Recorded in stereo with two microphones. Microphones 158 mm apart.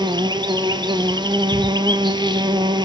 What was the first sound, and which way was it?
An insect, 30° right (ahead or behind).